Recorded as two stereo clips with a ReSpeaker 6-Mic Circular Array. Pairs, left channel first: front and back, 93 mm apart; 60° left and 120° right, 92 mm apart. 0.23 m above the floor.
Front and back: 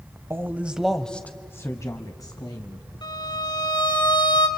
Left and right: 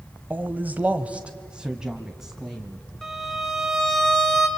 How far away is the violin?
About 3 m.